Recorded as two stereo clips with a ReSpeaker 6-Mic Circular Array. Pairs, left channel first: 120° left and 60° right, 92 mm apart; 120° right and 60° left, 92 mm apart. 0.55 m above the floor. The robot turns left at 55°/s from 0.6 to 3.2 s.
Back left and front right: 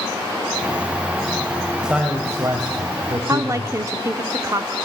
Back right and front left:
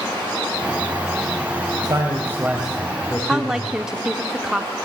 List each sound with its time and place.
1.8 s a man speaking: 25° left, 2.5 m; by 3.8 s 50° right, 2.5 m
3.3 s a woman speaking: 20° right, 1.1 m